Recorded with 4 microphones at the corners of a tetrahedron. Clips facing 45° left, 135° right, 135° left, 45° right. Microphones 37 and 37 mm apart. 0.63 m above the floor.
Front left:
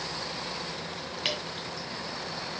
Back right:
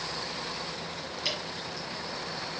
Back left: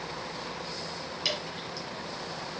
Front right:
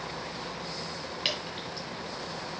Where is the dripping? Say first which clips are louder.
Front left 2 dB, even; 10° left, 2.5 m.